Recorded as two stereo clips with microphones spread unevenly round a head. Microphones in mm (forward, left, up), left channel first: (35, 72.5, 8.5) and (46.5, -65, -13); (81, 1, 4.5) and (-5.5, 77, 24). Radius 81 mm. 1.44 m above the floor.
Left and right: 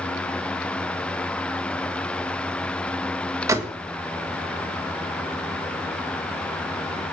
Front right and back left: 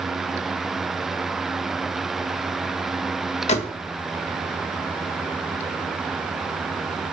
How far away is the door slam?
About 1.4 m.